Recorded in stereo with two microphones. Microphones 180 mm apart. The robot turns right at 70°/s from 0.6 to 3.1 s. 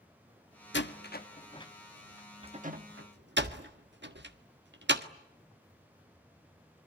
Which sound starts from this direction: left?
A door slam, at 0.7 s.